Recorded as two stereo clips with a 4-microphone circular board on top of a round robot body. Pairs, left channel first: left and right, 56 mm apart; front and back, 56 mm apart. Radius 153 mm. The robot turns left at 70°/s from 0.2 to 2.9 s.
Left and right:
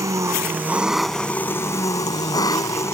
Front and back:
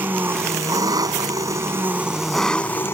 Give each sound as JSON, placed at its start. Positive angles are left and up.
{"t": 0.0, "sound": "an engine running", "azimuth_deg": -125}